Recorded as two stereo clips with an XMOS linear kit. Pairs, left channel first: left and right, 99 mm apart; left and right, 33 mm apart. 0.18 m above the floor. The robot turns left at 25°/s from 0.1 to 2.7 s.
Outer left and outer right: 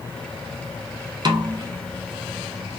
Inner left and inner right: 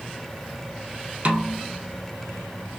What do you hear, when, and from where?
1.2 s a snare drum: 45° right (ahead or behind), 0.6 m; by 1.6 s 35° right (ahead or behind), 0.6 m